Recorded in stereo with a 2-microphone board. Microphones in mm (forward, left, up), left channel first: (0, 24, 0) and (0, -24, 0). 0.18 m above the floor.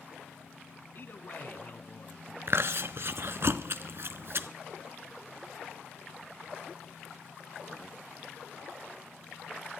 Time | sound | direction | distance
0.9 | a man speaking | 45° left (ahead or behind) | 1.4 m
2.5 | chewing | 60° right (ahead or behind) | 0.8 m